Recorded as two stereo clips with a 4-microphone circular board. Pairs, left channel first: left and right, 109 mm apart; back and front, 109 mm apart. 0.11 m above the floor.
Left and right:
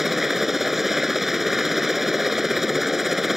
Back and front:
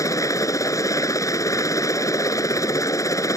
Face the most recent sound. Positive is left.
turn(degrees=-175)